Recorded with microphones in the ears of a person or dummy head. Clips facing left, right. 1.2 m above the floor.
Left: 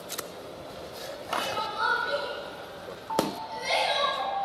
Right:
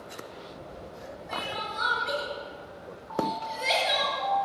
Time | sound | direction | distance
1.3 | crying | 50° right (ahead or behind) | 7 m
3.1 | a piano | 70° left (ahead or behind) | 4 m